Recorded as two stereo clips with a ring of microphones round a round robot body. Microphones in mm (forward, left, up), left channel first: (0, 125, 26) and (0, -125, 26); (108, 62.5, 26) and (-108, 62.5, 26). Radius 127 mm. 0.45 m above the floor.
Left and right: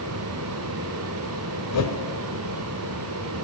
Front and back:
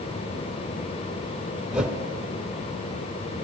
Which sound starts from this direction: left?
A whoosh, at 1.7 s.